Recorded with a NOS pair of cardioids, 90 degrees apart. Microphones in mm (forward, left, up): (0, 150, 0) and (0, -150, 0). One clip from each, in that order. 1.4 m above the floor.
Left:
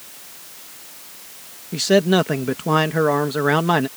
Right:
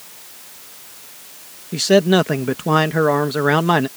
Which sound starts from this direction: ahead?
A man speaking, at 1.7 s.